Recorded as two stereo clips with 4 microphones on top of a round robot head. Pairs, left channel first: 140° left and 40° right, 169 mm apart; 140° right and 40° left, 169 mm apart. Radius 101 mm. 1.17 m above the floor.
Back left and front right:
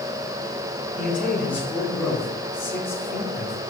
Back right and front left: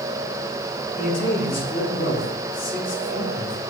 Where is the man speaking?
120° right, 5.5 m; by 3.6 s 130° right, 4 m.